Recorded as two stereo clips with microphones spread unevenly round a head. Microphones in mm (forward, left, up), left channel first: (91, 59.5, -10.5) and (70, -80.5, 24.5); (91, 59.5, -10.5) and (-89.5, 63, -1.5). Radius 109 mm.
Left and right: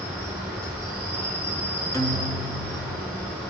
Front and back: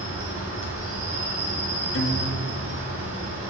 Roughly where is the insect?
Behind.